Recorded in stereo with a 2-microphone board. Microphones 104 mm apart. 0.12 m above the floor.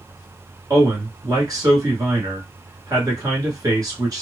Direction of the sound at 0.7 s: 35° right (ahead or behind).